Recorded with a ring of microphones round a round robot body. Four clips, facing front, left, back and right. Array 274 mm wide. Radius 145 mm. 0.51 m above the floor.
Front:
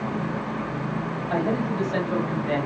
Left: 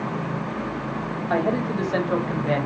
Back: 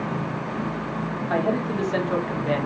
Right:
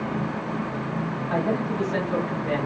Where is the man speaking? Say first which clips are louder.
Left 3 dB, back 1 dB; 110° left, 1.3 m.